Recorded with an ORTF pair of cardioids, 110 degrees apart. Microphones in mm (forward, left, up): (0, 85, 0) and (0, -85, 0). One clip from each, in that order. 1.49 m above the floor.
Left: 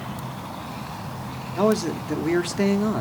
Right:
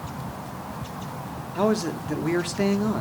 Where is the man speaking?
5° left, 0.5 m.